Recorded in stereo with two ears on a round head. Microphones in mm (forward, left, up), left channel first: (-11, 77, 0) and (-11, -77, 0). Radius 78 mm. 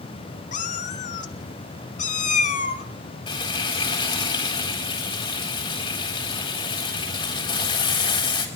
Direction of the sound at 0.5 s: 45° left (ahead or behind).